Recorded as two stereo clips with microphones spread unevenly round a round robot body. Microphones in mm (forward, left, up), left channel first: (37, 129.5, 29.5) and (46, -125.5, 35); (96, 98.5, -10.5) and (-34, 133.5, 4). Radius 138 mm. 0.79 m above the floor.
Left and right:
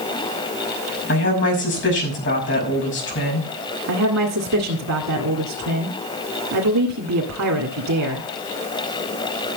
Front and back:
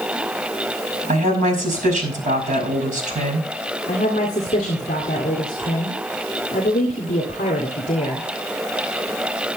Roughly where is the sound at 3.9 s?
Ahead right.